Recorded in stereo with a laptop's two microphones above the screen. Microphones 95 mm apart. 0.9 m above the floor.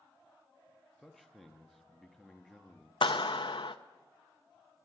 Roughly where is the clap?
Left.